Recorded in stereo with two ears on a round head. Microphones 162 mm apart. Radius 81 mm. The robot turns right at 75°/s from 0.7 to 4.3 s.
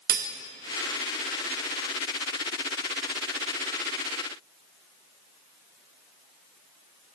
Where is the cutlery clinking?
55° right (ahead or behind), 0.7 m.